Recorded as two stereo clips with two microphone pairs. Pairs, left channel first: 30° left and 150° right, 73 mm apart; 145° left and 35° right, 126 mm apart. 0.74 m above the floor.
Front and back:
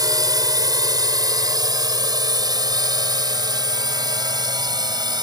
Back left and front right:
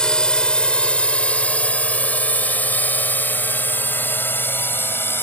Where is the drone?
135° right; by 5.2 s 145° right.